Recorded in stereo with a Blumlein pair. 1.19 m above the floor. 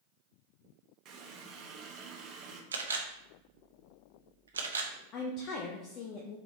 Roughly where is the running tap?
Ahead right.